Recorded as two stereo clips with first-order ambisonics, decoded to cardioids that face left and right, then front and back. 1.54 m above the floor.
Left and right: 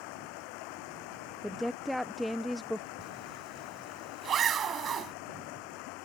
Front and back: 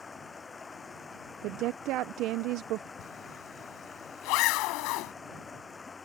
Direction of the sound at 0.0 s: 75° left.